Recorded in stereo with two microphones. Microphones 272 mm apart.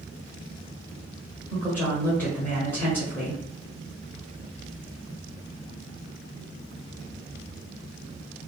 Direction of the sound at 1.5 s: 5° left (ahead or behind).